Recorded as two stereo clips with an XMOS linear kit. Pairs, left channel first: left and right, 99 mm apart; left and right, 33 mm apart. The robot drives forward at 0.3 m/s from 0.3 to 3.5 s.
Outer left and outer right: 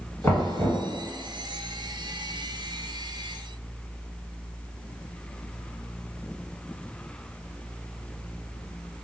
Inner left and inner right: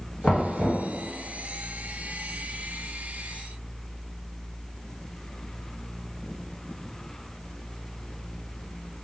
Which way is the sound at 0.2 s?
20° left (ahead or behind).